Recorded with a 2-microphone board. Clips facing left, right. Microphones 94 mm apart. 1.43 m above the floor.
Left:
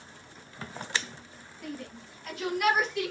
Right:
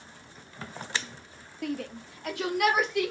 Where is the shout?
75° right (ahead or behind), 0.6 m; by 3.1 s 70° right (ahead or behind), 1.8 m.